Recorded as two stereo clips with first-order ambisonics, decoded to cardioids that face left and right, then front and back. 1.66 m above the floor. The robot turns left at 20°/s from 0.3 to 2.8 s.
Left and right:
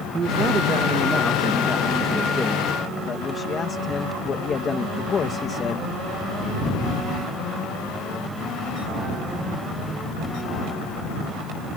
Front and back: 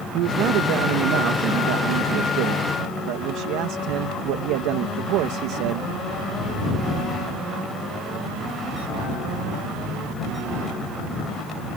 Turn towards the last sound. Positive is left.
turn(degrees=160)